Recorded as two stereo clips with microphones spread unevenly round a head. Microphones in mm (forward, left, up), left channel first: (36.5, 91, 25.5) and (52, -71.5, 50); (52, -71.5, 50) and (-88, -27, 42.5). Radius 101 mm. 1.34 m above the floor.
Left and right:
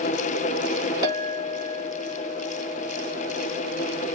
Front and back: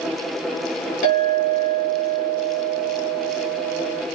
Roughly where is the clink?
Ahead.